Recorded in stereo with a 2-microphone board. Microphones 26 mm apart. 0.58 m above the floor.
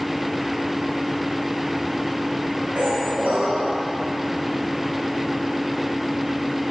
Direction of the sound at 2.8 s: 75° right (ahead or behind).